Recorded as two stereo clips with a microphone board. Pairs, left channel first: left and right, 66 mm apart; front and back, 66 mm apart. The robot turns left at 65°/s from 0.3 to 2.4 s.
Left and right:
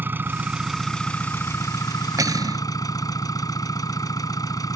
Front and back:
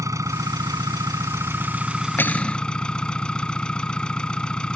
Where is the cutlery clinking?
55° right; by 2.6 s 70° right.